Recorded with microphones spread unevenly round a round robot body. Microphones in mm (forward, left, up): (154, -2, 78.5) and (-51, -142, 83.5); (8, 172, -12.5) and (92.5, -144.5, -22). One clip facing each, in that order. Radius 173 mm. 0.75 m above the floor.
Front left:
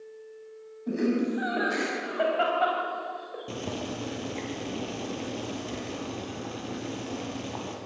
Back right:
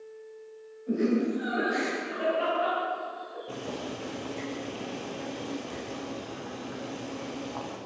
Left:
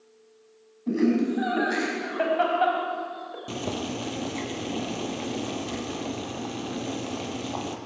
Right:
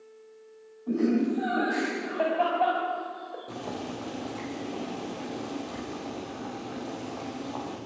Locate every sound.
0.9 s laughter: 65° left, 5.5 m; by 3.5 s 40° left, 4 m
3.5 s boiling: 75° left, 3.5 m